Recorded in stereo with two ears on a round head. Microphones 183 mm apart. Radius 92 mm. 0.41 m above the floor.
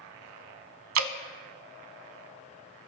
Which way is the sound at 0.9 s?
75° right (ahead or behind).